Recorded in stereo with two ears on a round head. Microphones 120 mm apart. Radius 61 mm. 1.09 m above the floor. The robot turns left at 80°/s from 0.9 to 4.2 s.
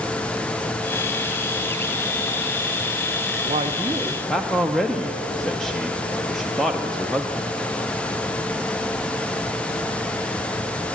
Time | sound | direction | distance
3.5 | a man speaking | 120° right | 0.5 m